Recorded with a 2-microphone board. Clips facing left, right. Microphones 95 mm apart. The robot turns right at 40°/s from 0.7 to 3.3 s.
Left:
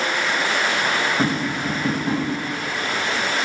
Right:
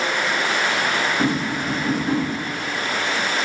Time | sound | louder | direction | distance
1.2 | tapping | even | 65° left (ahead or behind) | 1.1 m